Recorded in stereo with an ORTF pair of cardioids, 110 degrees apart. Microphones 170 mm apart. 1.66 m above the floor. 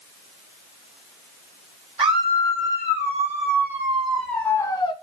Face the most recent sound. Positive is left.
turn(degrees=35)